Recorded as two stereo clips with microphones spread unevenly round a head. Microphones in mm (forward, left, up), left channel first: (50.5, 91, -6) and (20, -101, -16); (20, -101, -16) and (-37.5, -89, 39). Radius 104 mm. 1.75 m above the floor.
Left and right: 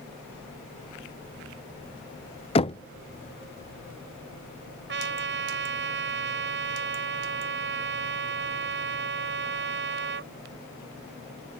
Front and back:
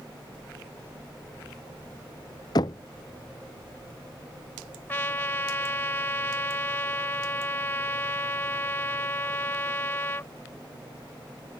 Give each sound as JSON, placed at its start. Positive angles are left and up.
{"t": 2.5, "sound": "knocking", "azimuth_deg": 75}
{"t": 4.9, "sound": "a trumpet", "azimuth_deg": -70}